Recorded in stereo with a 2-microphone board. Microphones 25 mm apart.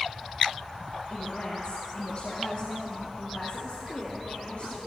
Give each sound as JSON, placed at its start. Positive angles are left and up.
{"t": 1.1, "sound": "a woman speaking", "side_deg": 50, "distance_m": 3.0}